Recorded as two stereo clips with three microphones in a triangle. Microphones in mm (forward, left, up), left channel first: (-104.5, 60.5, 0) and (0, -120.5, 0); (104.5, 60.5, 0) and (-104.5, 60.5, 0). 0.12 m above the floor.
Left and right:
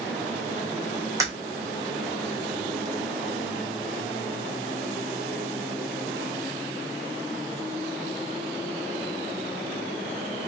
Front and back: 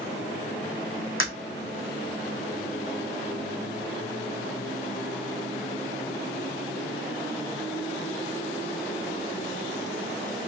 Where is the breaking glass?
15° left, 1.8 m.